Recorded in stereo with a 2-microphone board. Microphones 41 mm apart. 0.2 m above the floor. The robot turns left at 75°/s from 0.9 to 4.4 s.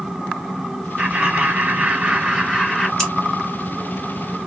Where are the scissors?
10° left (ahead or behind), 1.9 m; by 3.1 s 5° left (ahead or behind), 1.9 m.